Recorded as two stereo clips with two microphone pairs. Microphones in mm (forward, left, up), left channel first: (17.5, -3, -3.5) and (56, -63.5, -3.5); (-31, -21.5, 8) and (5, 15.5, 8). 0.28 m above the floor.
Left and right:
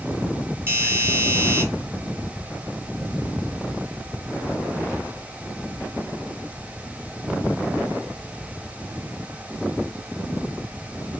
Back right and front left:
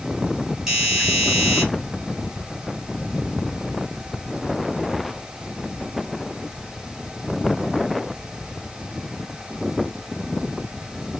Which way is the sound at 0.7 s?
35° right.